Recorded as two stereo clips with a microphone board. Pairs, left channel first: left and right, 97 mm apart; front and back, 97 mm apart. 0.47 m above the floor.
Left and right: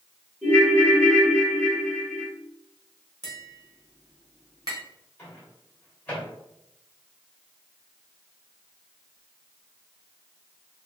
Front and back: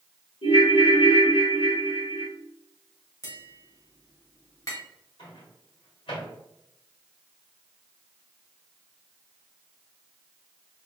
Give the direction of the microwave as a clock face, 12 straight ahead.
11 o'clock.